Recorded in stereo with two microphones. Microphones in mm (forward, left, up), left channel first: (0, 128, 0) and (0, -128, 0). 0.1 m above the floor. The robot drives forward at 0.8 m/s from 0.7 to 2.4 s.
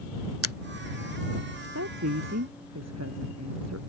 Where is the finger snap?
65° right (ahead or behind).